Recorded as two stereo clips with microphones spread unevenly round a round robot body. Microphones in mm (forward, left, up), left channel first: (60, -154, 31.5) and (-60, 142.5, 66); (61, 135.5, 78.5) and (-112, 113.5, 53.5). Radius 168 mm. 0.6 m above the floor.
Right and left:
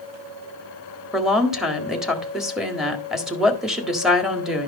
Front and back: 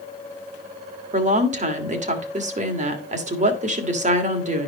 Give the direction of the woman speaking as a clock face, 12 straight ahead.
5 o'clock.